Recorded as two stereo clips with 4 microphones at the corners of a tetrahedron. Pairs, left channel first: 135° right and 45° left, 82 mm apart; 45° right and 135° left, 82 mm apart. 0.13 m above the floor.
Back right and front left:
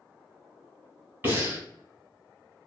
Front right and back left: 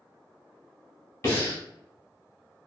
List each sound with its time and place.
1.2 s breathing: 10° right, 1.5 m